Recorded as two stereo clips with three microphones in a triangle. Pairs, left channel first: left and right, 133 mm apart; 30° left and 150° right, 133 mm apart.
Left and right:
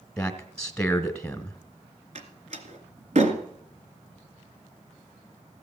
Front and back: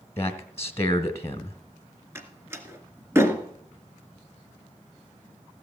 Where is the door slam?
80° right, 1.9 m.